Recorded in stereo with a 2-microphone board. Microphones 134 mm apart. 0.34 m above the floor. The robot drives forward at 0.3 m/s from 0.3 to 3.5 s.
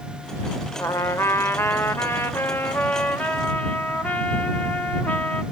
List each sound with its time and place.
0.8 s a trumpet: 20° left (ahead or behind), 0.7 m; by 5.4 s 15° left (ahead or behind), 1.0 m